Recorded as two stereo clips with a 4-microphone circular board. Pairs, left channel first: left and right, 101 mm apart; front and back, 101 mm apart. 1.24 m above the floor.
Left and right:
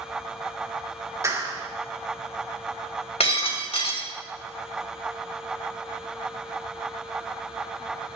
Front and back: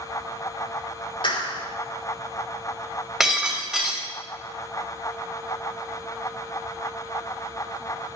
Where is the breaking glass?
90° left, 4 m.